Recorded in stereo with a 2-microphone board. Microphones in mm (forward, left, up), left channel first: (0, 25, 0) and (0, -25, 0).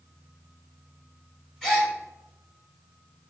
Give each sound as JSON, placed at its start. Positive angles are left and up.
{"t": 1.6, "sound": "a gasp", "side_deg": 10, "distance_m": 1.1}